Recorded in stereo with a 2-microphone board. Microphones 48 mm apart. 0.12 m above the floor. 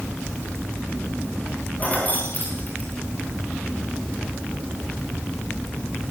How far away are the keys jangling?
About 9.5 m.